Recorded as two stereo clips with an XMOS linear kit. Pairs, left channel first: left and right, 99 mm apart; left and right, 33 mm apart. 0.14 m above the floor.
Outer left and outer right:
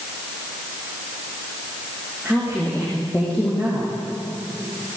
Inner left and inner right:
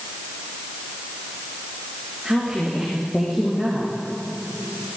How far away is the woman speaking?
About 6.5 m.